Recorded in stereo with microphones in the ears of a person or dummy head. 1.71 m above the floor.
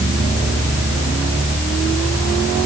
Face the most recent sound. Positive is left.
No sound to turn to.